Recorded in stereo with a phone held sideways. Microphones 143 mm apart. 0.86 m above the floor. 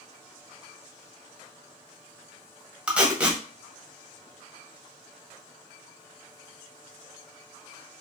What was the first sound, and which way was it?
Tape being pulled, 10° right (ahead or behind).